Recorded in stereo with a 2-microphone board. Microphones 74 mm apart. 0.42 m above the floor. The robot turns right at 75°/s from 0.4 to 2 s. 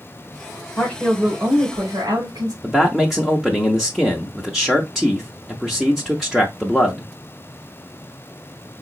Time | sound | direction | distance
0.8 | a woman speaking | 155° left | 2.5 m
2.6 | a man speaking | centre (ahead or behind) | 0.9 m